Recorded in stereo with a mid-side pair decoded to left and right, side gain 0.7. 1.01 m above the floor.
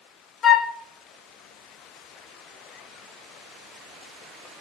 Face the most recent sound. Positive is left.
turn(degrees=35)